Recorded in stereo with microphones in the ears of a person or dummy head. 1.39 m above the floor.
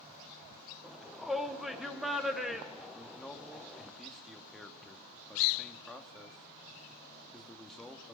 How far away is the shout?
About 1.2 m.